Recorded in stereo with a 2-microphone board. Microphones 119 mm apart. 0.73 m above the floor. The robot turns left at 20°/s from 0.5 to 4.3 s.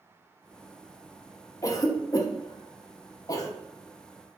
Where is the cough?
30° left (ahead or behind), 0.5 m.